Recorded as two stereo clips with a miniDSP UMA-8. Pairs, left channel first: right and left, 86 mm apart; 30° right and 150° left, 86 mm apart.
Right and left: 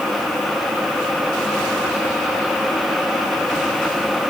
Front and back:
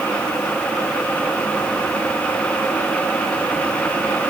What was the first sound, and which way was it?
Only background noise.